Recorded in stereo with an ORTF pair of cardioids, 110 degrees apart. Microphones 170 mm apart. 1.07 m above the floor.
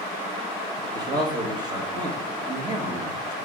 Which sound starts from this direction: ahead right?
A man speaking, at 0.9 s.